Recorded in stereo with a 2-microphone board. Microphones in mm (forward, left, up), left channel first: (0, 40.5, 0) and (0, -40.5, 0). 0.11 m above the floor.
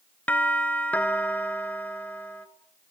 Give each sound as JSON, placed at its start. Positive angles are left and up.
{"t": 0.3, "sound": "a doorbell", "side_deg": 20, "distance_m": 1.7}